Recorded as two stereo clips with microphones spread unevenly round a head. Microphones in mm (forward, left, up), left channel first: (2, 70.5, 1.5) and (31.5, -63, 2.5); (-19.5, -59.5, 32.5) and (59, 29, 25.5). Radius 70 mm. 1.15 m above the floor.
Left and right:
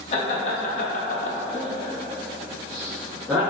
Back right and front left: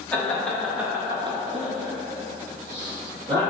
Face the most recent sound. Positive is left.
turn(degrees=5)